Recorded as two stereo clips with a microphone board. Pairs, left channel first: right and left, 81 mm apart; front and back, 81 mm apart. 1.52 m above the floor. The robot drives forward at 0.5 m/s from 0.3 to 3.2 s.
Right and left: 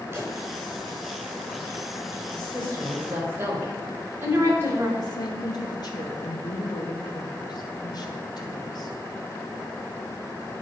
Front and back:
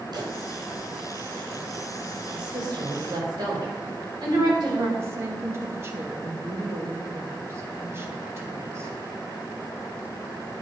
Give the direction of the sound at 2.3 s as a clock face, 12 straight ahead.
7 o'clock.